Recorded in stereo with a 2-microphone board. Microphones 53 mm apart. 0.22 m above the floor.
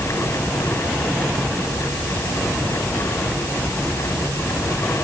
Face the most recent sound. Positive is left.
No sound to turn to.